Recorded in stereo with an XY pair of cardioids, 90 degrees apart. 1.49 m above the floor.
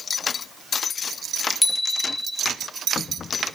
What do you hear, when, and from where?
1.6 s a bicycle bell: 15° left, 2.5 m